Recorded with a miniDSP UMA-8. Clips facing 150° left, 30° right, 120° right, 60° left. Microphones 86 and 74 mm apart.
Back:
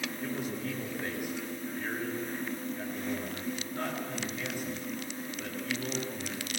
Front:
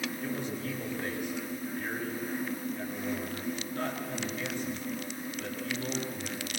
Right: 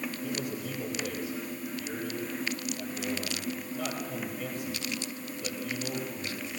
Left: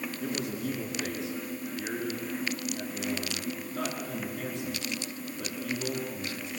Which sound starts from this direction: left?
A man speaking, at 0.2 s.